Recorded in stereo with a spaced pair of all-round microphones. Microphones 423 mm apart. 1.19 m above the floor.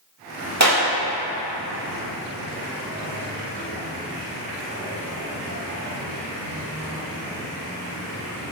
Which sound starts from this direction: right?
A clap, at 0.6 s.